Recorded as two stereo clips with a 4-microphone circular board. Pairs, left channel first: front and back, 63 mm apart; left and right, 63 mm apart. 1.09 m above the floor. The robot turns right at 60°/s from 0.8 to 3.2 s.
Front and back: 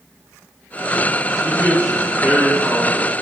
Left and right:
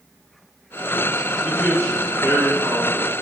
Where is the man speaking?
150° right, 1.5 m; by 3.1 s 50° right, 1.5 m.